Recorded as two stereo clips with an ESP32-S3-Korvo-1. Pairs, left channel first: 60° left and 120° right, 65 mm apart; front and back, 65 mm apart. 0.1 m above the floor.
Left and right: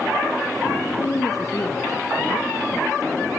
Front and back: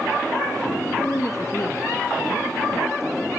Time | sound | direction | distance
1.0 | a woman speaking | 35° left | 2.5 m